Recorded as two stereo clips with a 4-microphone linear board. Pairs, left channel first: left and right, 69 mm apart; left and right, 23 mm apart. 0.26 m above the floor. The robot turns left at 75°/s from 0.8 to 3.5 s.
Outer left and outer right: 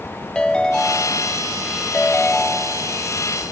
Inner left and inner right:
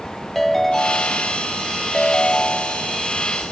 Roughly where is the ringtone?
Centre.